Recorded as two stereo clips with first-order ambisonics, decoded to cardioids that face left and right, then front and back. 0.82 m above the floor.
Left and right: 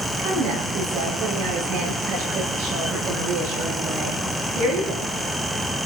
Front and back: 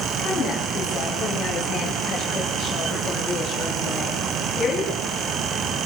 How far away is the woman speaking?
About 8 m.